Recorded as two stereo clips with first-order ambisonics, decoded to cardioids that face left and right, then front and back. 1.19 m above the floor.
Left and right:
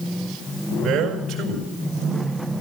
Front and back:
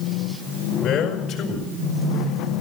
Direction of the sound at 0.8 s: 30° right.